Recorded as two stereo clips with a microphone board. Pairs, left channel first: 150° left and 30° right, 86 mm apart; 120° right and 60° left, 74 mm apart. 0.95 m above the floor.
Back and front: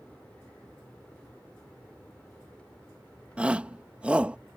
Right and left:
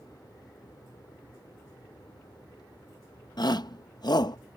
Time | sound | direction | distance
0.0 | an aircraft | 135° right | ?
3.4 | a shout | 105° right | ?